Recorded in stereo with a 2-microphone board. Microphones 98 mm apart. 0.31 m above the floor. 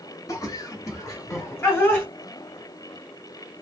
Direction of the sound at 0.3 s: 35° left (ahead or behind).